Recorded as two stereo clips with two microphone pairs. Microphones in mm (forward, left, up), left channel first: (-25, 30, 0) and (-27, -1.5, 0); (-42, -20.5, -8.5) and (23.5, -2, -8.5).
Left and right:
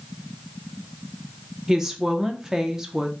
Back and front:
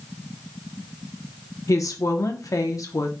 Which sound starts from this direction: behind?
A woman speaking, at 1.7 s.